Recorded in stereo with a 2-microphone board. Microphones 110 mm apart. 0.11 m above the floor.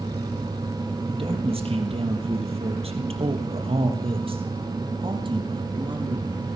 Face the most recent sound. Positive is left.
turn(degrees=-40)  # may be behind; listen again after turning